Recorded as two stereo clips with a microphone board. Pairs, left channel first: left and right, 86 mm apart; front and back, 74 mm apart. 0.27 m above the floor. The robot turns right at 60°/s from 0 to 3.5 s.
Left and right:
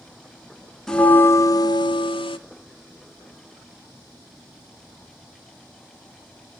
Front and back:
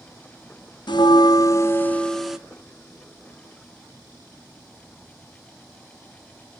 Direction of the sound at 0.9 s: 5° left.